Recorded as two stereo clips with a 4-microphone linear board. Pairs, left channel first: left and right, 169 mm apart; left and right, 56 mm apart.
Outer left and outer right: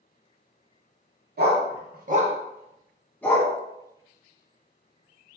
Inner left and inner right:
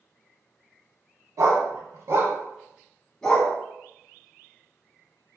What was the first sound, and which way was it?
A dog barking, 70° right (ahead or behind).